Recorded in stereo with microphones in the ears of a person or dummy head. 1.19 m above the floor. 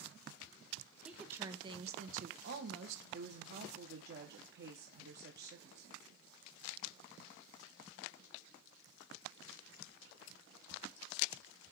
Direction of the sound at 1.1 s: Centre (ahead or behind).